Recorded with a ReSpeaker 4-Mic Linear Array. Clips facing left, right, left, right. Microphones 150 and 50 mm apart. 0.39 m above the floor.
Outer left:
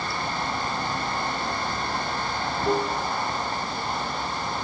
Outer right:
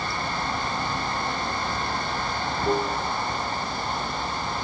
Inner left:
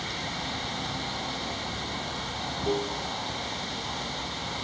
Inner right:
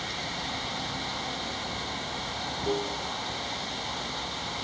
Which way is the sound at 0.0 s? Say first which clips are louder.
Even, inner left 1 dB; centre (ahead or behind).